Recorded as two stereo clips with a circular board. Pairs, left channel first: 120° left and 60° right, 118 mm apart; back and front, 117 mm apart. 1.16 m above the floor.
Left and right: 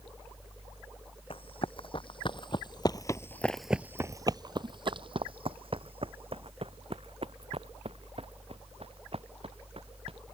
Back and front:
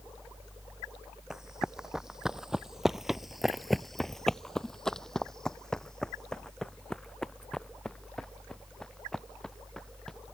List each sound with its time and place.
1.3 s running footsteps: 85° left; by 10.2 s 95° right